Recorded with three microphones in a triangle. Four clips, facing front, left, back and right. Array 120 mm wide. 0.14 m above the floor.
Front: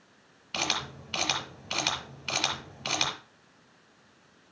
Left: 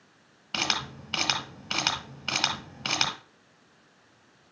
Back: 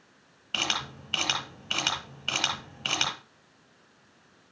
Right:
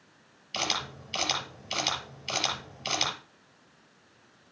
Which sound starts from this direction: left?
A camera shutter, at 0.5 s.